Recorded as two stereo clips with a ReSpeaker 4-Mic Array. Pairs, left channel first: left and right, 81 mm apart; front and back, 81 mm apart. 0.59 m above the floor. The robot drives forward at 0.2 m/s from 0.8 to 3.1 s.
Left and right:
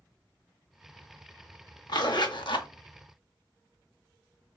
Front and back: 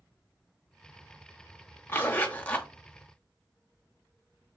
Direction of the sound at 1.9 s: 60° left.